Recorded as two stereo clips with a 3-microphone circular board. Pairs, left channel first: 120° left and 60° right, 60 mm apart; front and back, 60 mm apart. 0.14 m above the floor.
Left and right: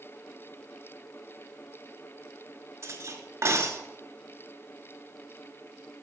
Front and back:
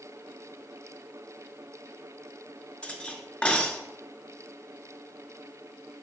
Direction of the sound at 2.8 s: 65° right.